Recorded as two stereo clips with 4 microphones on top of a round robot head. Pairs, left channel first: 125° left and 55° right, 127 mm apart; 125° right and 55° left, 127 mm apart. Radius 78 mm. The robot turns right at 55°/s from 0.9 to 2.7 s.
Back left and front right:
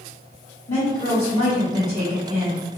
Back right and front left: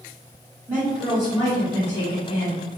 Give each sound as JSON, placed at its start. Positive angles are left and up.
{"t": 0.7, "sound": "a woman speaking", "azimuth_deg": 125, "distance_m": 1.3}